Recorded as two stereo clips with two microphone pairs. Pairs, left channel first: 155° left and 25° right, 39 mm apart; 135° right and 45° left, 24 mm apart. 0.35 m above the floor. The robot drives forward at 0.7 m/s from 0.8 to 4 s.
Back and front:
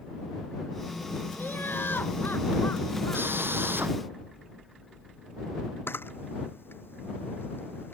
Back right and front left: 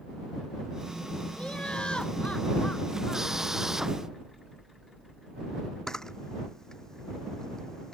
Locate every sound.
1.4 s laughter: straight behind
3.1 s a drill: 25° right
5.9 s a camera shutter: 160° left